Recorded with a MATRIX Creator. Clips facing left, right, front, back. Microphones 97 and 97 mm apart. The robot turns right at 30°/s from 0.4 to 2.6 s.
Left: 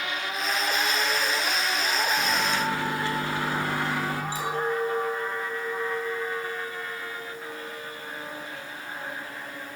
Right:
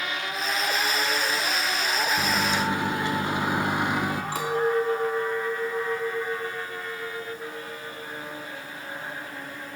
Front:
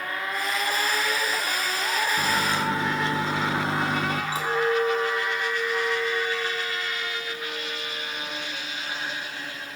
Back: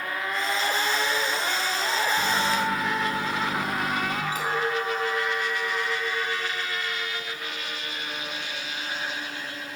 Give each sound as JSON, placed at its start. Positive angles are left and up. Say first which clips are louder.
{"t": 2.2, "sound": "a microwave", "louder": "right 1 dB, even", "azimuth_deg": -45, "distance_m": 0.8}
{"t": 4.3, "sound": "a clink", "louder": "right 6 dB, front 5 dB", "azimuth_deg": -60, "distance_m": 4.0}